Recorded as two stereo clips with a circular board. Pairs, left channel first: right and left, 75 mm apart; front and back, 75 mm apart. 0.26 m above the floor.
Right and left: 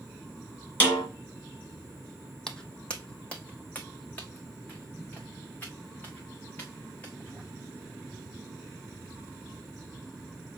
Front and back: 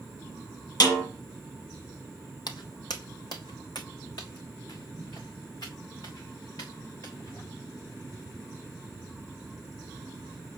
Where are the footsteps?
10° right, 0.7 m; by 7.4 s 25° right, 3.5 m.